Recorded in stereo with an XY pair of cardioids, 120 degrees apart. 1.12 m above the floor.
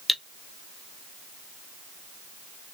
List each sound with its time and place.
0.1 s cutlery clinking: 5° left, 0.5 m